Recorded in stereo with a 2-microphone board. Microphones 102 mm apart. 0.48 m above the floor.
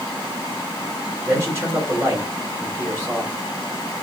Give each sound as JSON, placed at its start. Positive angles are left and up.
{"t": 1.2, "sound": "a man speaking", "side_deg": -30, "distance_m": 2.0}